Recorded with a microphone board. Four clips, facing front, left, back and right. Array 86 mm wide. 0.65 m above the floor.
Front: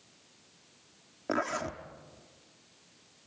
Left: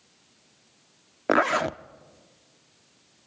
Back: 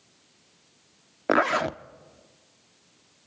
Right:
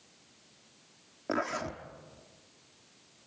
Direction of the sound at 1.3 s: 130° left.